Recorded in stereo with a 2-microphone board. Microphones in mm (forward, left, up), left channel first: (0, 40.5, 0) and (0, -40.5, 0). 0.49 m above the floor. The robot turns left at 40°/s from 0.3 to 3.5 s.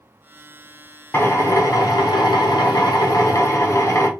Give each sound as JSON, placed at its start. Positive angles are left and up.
{"t": 1.1, "sound": "a drill", "azimuth_deg": 145, "distance_m": 0.9}